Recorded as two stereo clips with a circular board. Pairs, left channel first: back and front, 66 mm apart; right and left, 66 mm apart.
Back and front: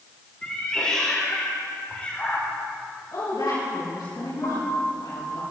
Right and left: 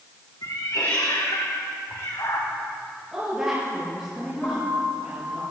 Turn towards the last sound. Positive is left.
turn(degrees=-150)